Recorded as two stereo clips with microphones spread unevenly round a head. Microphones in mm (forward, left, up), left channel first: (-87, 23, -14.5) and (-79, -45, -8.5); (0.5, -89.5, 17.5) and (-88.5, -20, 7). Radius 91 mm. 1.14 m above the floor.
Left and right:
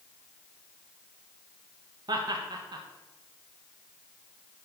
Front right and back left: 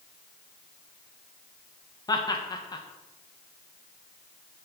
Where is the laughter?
95° right, 1.3 m.